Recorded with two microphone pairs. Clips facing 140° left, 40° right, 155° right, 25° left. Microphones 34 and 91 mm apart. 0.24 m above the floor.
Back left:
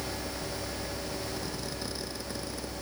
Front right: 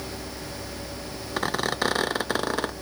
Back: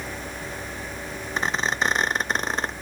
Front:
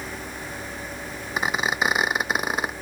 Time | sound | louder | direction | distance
1.4 | a squeak | front right 11 dB, front 1 dB | 50° right | ?